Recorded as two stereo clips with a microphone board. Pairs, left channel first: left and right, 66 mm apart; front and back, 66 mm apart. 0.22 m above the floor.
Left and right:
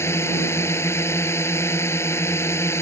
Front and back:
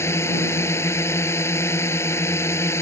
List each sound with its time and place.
0.0 s a drone: 45° left